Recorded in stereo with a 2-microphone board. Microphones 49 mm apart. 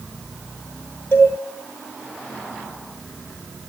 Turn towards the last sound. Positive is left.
turn(degrees=40)  # may be behind; listen again after turning